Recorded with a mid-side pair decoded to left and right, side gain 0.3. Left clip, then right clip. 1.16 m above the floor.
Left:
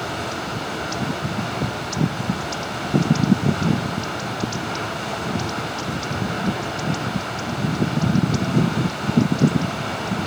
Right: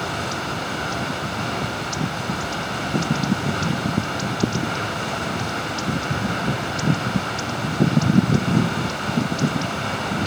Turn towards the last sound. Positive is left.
turn(degrees=-25)